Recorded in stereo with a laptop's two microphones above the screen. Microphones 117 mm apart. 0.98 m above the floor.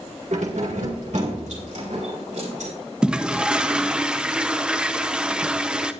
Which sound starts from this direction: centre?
A toilet flushing, at 3.0 s.